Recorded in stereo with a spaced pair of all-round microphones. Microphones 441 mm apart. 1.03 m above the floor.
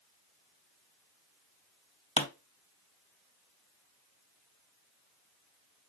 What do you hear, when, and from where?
2.2 s a pop: 15° left (ahead or behind), 0.6 m